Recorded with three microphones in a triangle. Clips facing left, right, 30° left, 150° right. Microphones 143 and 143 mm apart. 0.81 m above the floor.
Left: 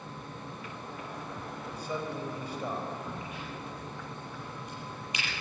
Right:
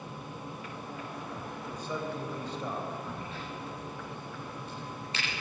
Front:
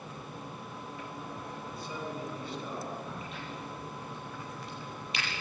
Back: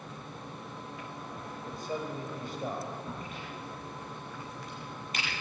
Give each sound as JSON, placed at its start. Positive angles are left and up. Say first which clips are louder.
{"t": 1.6, "sound": "a man speaking", "louder": "even, back 5 dB", "azimuth_deg": 170, "distance_m": 4.0}
{"t": 3.1, "sound": "a crack", "louder": "even, even", "azimuth_deg": 165, "distance_m": 9.0}